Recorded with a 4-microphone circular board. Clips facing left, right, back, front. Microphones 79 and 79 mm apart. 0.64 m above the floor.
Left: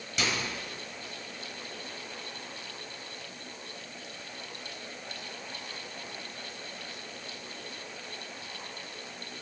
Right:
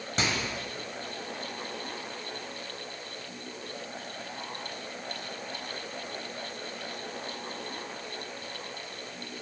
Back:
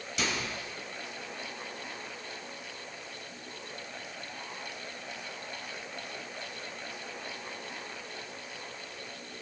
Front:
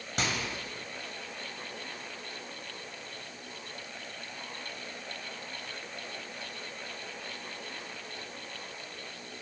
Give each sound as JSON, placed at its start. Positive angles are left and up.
{"t": 0.2, "sound": "a microwave", "azimuth_deg": -40, "distance_m": 3.0}